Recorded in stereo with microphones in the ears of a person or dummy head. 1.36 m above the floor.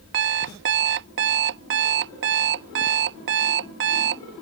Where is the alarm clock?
55° right (ahead or behind).